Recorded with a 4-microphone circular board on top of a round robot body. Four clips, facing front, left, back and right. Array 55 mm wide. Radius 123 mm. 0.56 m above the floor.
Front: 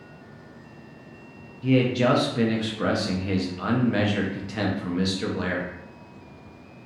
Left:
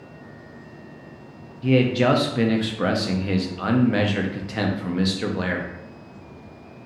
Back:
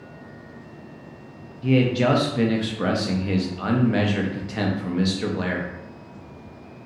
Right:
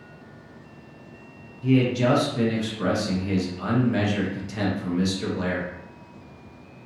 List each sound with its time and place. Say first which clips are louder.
1.6 s a man speaking: left 2 dB, back 1 dB; 90° left, 0.8 m